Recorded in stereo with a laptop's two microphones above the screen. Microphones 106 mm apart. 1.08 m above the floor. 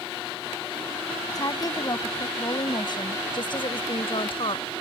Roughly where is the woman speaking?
Left.